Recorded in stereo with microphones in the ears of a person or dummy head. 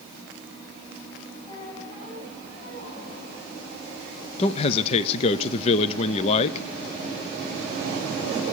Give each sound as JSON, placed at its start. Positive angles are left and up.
{"t": 1.5, "sound": "a squeak", "side_deg": 35, "distance_m": 9.0}
{"t": 4.4, "sound": "a man speaking", "side_deg": 35, "distance_m": 0.6}